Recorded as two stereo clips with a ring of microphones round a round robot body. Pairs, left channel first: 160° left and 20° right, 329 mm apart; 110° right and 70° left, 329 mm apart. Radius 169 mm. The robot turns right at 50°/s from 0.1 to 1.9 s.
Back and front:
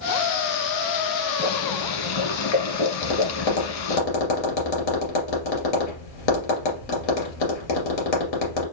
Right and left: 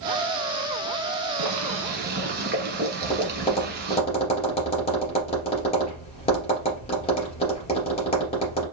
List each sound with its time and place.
1.4 s boiling: 105° left, 1.2 m; by 4.0 s 130° left, 1.2 m
3.0 s tapping: 175° left, 2.5 m